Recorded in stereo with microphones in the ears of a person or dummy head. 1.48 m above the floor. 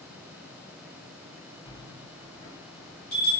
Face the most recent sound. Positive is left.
turn(degrees=20)  # may be behind; listen again after turning